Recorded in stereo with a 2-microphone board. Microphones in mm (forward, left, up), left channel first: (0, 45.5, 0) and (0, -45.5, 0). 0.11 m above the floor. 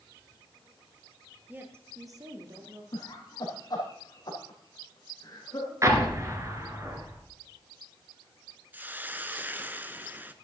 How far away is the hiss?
About 0.7 m.